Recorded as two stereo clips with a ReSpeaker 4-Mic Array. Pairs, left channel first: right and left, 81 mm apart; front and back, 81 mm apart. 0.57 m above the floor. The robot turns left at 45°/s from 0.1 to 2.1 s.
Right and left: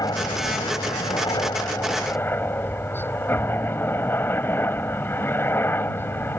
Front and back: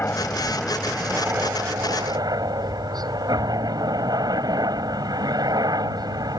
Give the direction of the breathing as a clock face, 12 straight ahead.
No breathing in this recording.